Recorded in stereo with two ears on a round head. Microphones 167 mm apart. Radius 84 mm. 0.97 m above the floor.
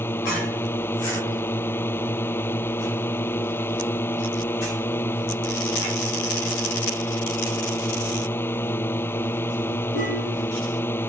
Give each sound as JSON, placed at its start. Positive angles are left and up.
{"t": 0.0, "sound": "a drone", "side_deg": 15}